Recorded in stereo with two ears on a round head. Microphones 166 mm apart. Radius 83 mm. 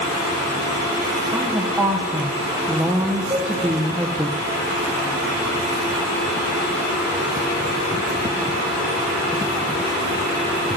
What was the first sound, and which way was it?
A woman speaking, 10° right (ahead or behind).